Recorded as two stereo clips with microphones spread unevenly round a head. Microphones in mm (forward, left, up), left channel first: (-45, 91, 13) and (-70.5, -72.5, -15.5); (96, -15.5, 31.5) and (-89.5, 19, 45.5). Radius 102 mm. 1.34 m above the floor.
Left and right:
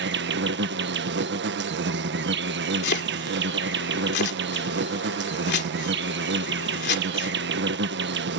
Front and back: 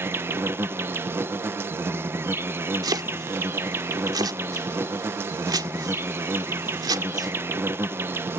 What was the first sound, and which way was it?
An insect, 110° right.